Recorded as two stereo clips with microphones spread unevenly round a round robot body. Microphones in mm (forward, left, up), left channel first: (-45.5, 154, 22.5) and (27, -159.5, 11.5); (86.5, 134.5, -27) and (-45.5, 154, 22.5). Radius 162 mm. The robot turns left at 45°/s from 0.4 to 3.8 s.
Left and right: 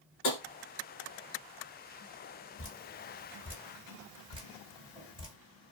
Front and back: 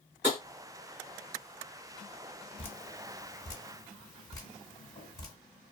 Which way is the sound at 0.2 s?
90° left.